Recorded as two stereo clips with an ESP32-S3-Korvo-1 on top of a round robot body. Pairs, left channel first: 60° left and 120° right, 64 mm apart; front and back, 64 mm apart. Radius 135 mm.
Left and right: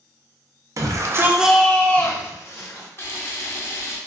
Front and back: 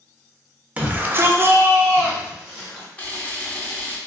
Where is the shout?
115° right, 0.8 m; by 2.9 s 105° left, 1.5 m.